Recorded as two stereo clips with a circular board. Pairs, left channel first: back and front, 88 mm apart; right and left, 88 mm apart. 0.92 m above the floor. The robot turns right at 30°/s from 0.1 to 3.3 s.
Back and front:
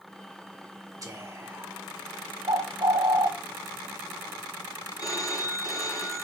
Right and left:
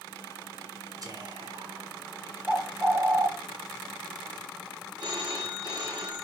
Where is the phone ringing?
130° left, 2.5 m.